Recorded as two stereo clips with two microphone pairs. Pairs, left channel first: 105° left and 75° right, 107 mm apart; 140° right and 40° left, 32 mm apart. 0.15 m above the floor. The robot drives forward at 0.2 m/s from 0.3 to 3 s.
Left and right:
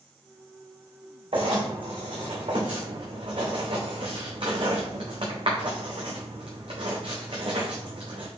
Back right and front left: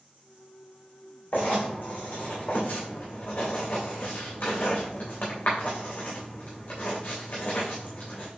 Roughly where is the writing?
Behind right.